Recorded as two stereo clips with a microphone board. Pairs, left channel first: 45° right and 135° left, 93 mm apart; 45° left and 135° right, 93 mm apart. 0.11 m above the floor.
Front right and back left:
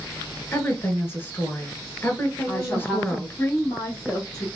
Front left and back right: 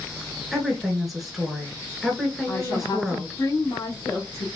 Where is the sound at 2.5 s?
20° left, 1.6 m.